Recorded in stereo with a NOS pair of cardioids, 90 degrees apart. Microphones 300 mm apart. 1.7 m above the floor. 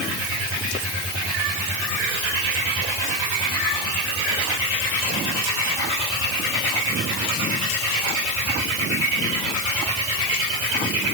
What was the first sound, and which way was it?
Only background noise.